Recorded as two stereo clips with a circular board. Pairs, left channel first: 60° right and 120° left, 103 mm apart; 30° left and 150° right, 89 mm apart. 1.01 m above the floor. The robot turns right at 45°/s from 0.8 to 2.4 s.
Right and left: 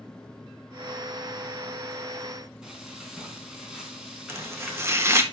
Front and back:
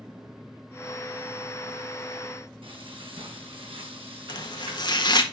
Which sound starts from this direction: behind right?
Frying, at 2.6 s.